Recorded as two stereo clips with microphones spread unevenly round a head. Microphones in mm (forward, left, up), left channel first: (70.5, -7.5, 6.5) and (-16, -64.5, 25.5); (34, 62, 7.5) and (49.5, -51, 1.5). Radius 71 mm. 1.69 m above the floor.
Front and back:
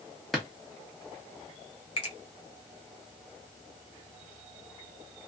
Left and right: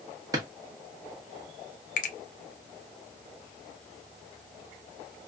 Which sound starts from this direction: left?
A finger snap, at 2.0 s.